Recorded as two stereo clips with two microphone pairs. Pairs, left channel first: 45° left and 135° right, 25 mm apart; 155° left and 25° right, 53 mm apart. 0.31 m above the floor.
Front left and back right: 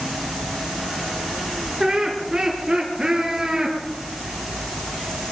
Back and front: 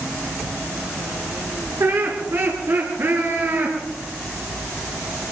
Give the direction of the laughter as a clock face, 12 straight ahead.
2 o'clock.